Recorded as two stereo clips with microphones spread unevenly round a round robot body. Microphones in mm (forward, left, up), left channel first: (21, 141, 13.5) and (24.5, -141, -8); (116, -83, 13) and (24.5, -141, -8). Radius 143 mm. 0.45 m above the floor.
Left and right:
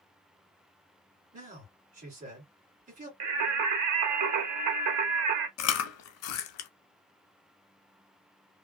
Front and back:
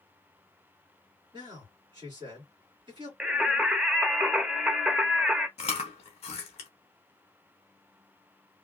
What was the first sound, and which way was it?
A man speaking, 145° right.